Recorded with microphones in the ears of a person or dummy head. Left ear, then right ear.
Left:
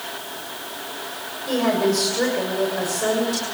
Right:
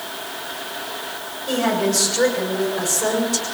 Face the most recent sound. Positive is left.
turn(degrees=5)  # may be behind; listen again after turning